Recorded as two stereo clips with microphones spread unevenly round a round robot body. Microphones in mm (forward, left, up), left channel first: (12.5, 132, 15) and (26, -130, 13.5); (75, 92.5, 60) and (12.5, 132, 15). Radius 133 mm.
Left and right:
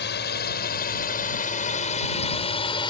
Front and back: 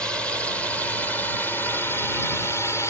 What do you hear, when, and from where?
0.0 s a drone: 80° left; by 2.9 s 50° left